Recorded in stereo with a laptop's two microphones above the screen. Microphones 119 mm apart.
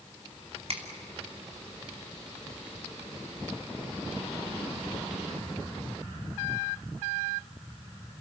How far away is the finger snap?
About 2.5 m.